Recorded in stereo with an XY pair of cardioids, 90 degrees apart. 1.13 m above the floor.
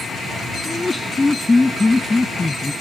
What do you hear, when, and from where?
0.7 s laughter: 20° left; by 2.7 s 15° left